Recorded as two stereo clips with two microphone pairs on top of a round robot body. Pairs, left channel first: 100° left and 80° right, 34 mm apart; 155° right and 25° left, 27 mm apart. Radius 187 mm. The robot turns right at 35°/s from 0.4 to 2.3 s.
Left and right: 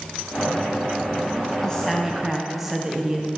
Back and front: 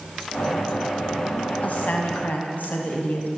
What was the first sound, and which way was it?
A woman speaking, 175° left.